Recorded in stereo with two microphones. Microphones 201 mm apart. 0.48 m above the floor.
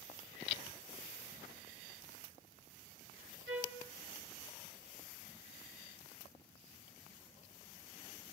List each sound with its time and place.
3.5 s a trumpet: 75° right (ahead or behind), 1.7 m